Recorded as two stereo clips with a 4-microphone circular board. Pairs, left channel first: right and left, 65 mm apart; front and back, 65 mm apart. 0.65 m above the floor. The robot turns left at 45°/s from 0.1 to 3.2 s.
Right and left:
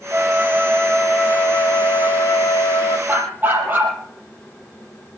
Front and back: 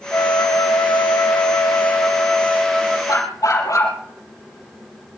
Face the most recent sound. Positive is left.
turn(degrees=30)